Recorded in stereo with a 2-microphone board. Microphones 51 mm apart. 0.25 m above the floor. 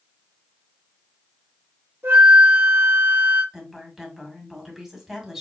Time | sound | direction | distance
2.0 | a flute | 50° right (ahead or behind) | 2.5 m
3.5 | a woman speaking | 5° right (ahead or behind) | 1.9 m